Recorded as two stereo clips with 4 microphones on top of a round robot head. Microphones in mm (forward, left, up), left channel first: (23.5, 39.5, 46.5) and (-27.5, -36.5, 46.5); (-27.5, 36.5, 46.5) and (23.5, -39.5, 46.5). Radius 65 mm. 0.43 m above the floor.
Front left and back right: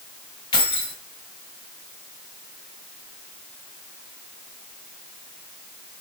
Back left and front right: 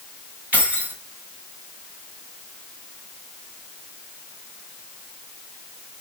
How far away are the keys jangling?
About 2.5 m.